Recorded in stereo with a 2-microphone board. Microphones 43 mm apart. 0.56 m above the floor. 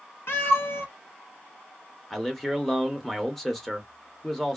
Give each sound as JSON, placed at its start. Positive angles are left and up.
{"t": 0.3, "sound": "a cat meowing", "side_deg": 65, "distance_m": 0.8}
{"t": 2.1, "sound": "a man speaking", "side_deg": 5, "distance_m": 0.6}